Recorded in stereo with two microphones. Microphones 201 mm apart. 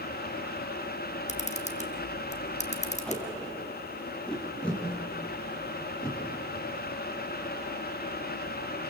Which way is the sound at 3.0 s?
5° left (ahead or behind).